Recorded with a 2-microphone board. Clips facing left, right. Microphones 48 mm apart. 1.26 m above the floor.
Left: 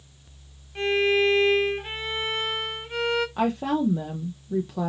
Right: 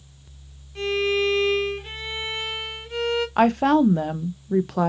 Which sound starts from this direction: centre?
A violin, at 0.8 s.